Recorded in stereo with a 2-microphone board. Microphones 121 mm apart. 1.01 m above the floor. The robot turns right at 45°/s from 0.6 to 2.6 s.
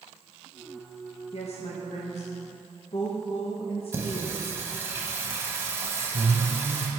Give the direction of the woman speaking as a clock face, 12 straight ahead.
10 o'clock.